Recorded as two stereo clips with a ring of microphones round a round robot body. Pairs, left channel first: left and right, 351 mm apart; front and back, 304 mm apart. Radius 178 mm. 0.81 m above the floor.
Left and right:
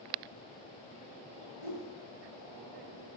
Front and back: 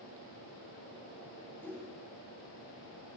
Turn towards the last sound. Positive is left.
turn(degrees=85)